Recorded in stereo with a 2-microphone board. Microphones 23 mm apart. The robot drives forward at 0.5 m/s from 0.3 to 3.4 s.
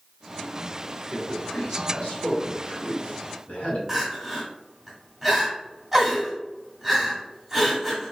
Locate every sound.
1.1 s a man speaking: 70° left (ahead or behind), 1.8 m
3.9 s crying: 10° right (ahead or behind), 1.6 m